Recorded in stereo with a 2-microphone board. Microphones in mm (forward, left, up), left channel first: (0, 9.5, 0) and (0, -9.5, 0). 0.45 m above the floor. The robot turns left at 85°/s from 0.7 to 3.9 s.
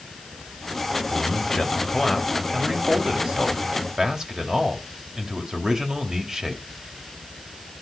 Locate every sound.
1.1 s a man speaking: 90° left, 2.5 m; by 6.6 s 145° right, 2.5 m